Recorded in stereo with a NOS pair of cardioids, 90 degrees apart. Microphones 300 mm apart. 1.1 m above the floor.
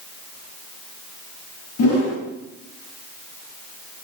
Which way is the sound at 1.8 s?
55° left.